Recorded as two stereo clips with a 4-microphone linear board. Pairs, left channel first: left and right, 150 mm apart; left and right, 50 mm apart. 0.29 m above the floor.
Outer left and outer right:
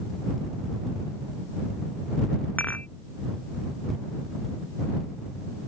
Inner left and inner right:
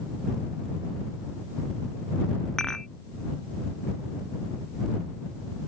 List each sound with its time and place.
2.6 s dishes clattering: 10° left (ahead or behind)